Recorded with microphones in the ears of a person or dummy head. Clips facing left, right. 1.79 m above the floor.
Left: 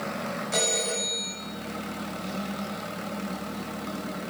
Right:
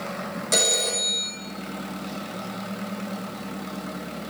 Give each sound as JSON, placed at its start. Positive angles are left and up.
{"t": 0.5, "sound": "a phone ringing", "side_deg": -75, "distance_m": 5.5}